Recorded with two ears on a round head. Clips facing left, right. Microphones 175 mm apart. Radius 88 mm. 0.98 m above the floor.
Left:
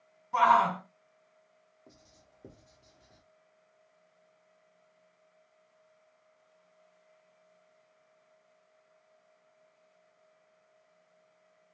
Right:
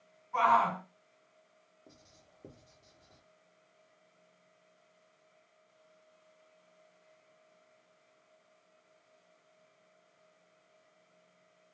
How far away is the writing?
About 0.9 m.